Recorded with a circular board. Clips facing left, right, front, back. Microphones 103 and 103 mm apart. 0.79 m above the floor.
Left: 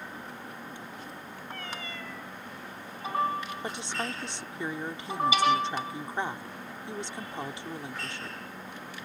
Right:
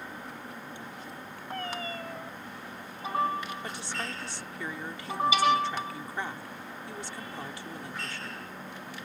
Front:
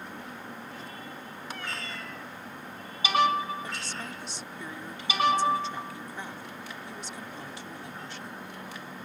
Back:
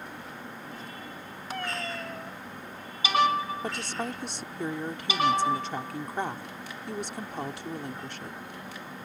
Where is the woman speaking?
155° left.